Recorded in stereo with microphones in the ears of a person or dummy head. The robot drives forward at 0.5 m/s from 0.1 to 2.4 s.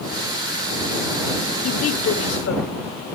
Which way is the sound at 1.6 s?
80° left.